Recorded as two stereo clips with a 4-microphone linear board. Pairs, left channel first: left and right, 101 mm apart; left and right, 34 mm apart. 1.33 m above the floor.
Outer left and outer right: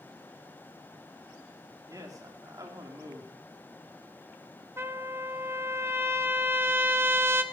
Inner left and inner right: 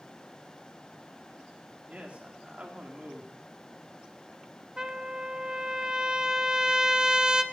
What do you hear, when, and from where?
1.9 s a man speaking: 35° right (ahead or behind), 2.5 m
4.8 s a trumpet: 25° right (ahead or behind), 0.9 m